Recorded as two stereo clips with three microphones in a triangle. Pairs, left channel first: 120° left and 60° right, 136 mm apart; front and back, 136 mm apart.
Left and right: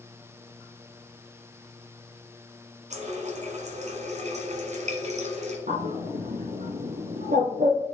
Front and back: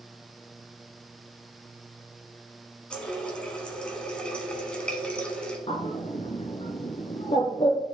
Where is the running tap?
85° right, 1.5 m.